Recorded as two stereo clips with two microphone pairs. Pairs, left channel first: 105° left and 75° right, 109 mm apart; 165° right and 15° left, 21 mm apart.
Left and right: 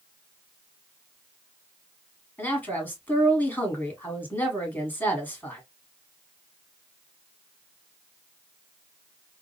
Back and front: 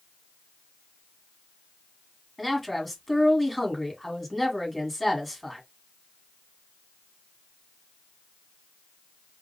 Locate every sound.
2.4 s a man speaking: 130° left, 1.4 m